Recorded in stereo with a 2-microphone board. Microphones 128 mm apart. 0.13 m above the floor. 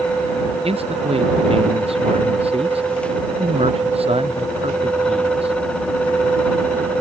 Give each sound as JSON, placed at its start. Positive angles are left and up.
{"t": 0.6, "sound": "a man speaking", "side_deg": -50}